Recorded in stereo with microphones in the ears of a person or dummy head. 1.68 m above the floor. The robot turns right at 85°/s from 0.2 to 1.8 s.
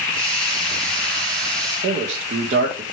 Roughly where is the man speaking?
Right.